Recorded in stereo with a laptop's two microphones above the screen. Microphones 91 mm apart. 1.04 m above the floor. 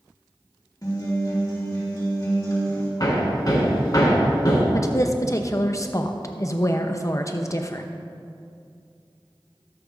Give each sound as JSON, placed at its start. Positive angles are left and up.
{"t": 0.8, "sound": "a guitar", "side_deg": 45, "distance_m": 2.0}
{"t": 3.0, "sound": "hammering", "side_deg": 45, "distance_m": 3.0}
{"t": 4.7, "sound": "a woman speaking", "side_deg": 35, "distance_m": 0.8}